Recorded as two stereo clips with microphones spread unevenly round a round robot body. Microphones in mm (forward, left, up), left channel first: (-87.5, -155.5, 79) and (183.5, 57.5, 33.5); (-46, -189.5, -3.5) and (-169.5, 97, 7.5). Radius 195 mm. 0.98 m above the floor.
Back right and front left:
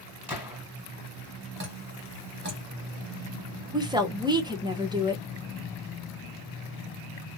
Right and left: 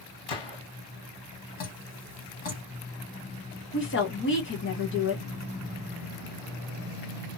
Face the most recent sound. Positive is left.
turn(degrees=-30)